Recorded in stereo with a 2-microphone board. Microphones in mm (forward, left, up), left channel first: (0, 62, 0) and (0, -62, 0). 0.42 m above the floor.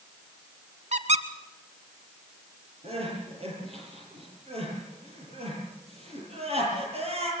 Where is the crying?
55° right (ahead or behind), 9.5 m.